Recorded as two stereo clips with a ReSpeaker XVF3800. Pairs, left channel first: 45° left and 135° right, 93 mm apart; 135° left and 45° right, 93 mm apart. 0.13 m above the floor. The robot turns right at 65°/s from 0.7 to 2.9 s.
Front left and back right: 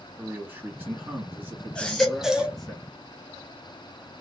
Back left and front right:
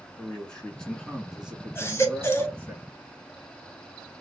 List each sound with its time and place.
0.2 s a man speaking: 160° right, 1.3 m; by 2.8 s 30° right, 1.3 m
1.8 s a baby crying: 110° left, 0.8 m; by 2.6 s 165° left, 0.8 m